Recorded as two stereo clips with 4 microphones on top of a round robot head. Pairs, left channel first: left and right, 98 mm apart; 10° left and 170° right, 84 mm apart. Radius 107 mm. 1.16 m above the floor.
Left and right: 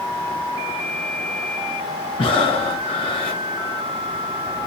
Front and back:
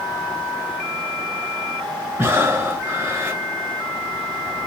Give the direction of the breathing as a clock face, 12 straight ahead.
8 o'clock.